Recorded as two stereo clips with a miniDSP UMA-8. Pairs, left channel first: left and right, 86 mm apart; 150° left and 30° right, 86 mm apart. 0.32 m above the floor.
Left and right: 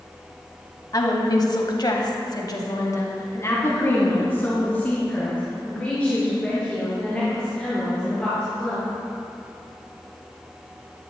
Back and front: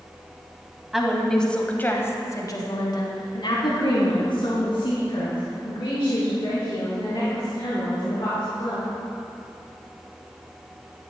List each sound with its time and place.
0.9 s a woman speaking: 55° left, 1.7 m; by 8.9 s 175° left, 6.5 m